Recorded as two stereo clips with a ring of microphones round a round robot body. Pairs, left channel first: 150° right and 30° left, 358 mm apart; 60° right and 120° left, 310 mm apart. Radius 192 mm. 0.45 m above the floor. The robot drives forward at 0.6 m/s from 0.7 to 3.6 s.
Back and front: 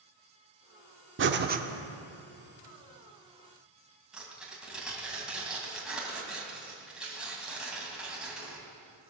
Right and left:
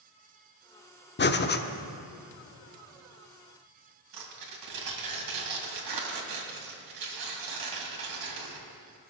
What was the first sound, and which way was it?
Breathing, 15° right.